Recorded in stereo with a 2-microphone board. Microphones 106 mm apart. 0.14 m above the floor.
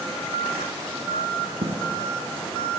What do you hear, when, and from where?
1.6 s a dropped coin: 80° right, 1.3 m